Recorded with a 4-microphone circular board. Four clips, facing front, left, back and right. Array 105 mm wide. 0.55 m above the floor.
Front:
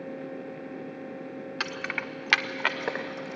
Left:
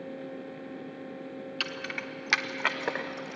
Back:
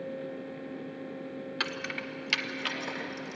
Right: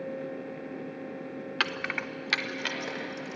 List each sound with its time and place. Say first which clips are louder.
1.6 s keys jangling: right 7 dB, front 3 dB; 75° right, 0.8 m; by 3.4 s 45° left, 1.9 m